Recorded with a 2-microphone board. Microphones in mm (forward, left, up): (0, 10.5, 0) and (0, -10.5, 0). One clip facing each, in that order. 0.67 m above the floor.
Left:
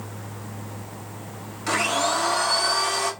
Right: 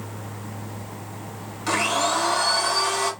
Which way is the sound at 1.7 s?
Centre (ahead or behind).